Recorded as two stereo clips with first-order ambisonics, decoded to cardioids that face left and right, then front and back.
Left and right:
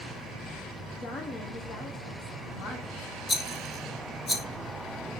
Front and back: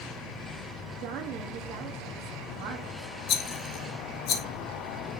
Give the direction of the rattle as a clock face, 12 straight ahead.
12 o'clock.